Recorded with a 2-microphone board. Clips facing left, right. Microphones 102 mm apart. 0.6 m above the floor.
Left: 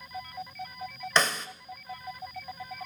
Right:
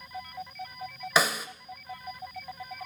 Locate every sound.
1.2 s a snare drum: 5° right (ahead or behind), 0.7 m